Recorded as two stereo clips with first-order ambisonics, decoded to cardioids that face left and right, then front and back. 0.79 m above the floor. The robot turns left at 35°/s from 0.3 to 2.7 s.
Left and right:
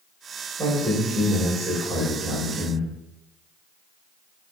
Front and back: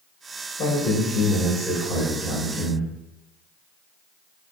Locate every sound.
0.6 s a man speaking: 10° right, 1.4 m; by 2.9 s 85° right, 1.4 m